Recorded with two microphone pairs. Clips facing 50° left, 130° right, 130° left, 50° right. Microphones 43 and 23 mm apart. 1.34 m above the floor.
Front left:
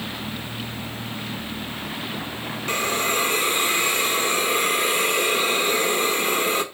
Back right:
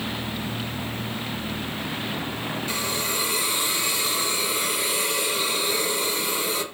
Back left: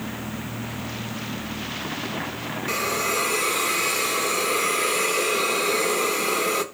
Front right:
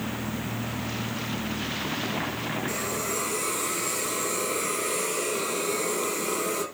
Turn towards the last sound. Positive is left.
turn(degrees=95)